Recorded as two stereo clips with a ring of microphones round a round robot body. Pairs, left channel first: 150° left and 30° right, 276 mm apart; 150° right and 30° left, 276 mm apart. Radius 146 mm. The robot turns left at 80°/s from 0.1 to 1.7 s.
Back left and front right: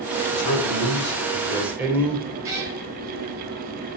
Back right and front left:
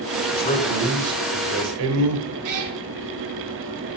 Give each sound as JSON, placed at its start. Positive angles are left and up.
{"t": 0.3, "sound": "a man speaking", "azimuth_deg": 165, "distance_m": 2.5}
{"t": 2.4, "sound": "a cat meowing", "azimuth_deg": 50, "distance_m": 3.5}